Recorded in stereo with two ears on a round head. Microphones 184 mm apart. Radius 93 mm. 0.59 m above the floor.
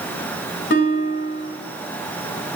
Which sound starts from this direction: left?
A guitar, at 0.7 s.